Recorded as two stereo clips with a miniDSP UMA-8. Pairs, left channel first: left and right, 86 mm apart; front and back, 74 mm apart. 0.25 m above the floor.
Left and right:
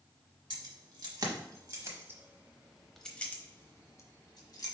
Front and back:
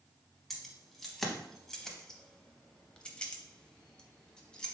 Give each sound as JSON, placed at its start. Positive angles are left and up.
{"t": 0.5, "sound": "keys jangling", "azimuth_deg": -90, "distance_m": 1.4}